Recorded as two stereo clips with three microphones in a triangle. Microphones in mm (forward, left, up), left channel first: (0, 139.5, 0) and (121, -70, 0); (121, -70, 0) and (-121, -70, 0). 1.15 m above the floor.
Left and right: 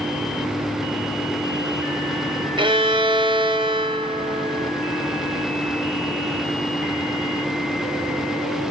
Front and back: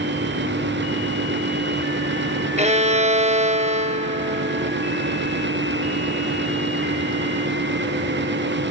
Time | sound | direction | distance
2.6 | a violin | 120° right | 0.6 m